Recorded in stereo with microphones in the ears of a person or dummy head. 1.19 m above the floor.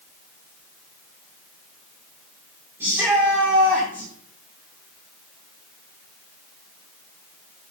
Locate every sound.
2.8 s a shout: 10° right (ahead or behind), 2.5 m